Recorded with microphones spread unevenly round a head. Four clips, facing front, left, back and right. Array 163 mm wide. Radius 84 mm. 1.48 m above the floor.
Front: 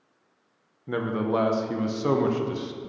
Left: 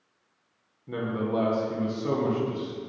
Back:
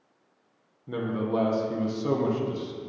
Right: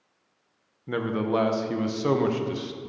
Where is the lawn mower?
I don't hear a lawn mower.